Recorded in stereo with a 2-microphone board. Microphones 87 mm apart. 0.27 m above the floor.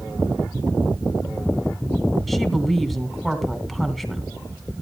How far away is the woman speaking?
About 2.5 m.